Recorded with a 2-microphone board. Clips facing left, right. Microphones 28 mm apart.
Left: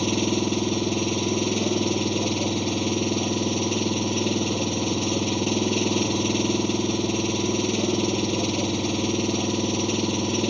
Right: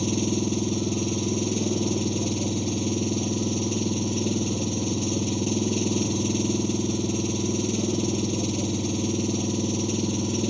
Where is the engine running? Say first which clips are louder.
Left 2 dB; 30° left (ahead or behind).